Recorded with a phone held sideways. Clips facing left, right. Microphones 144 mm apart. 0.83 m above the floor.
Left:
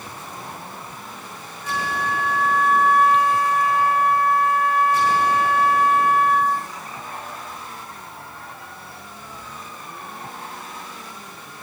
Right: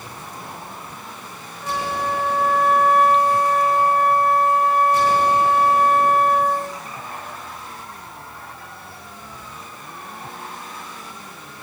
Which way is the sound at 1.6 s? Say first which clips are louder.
Right 2 dB; 70° right (ahead or behind).